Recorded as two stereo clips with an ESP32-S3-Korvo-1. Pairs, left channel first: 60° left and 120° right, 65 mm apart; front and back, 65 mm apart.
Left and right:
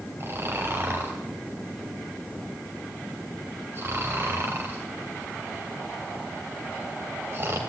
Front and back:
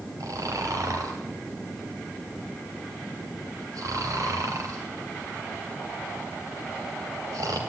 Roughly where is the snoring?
Behind.